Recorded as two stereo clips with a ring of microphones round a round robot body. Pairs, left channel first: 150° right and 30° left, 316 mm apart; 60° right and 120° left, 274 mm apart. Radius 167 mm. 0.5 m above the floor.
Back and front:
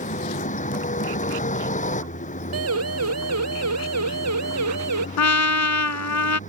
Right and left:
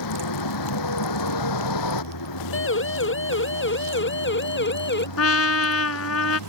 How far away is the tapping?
No tapping in this recording.